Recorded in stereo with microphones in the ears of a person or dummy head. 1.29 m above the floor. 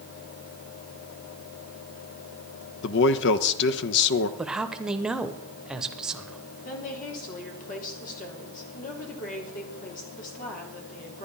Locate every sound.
2.8 s a man speaking: 65° left (ahead or behind), 1.0 m
4.4 s a man speaking: 5° right (ahead or behind), 0.8 m
6.7 s a woman speaking: 50° left (ahead or behind), 3.5 m